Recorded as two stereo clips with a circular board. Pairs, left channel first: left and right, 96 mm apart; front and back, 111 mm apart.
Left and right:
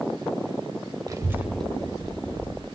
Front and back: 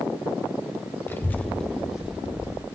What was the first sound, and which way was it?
A child speaking, 60° right.